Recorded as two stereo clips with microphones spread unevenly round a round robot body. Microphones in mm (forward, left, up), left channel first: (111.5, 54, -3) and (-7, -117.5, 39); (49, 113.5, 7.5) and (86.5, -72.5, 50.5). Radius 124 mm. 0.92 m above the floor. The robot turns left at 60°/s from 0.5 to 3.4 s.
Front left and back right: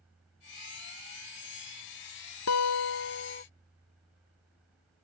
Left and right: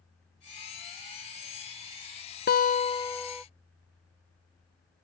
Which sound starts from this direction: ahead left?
A guitar, at 2.5 s.